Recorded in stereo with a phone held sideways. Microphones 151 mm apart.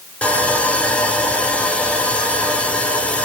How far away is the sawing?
About 3 m.